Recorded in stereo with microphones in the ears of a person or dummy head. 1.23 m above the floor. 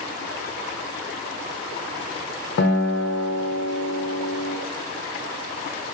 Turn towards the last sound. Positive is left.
turn(degrees=55)  # may be behind; listen again after turning